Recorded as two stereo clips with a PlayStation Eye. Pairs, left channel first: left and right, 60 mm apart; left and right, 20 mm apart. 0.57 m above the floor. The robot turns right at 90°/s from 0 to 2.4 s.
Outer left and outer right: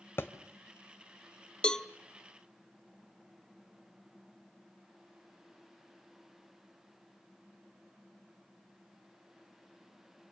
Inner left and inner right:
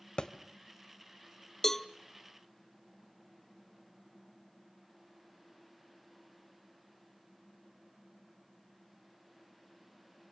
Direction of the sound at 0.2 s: 45° left (ahead or behind).